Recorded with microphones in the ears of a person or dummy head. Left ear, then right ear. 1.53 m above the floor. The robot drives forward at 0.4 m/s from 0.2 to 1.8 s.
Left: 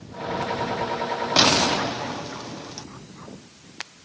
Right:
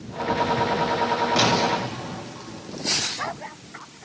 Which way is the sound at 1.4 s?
50° left (ahead or behind).